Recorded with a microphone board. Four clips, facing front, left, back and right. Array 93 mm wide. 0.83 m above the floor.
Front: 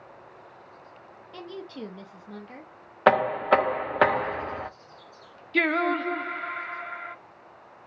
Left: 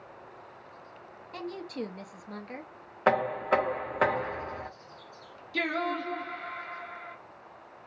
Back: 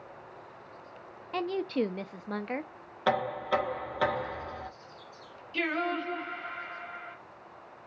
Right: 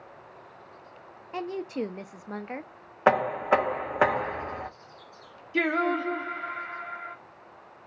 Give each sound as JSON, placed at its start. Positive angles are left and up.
{"t": 1.3, "sound": "a woman speaking", "azimuth_deg": -155, "distance_m": 0.5}
{"t": 3.1, "sound": "knocking", "azimuth_deg": -25, "distance_m": 0.5}
{"t": 5.5, "sound": "singing", "azimuth_deg": -25, "distance_m": 0.7}